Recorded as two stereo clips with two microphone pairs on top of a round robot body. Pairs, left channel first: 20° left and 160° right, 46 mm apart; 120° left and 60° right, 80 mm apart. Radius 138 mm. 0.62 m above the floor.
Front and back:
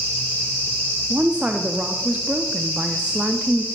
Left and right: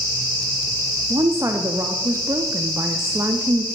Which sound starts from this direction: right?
A woman speaking, at 1.1 s.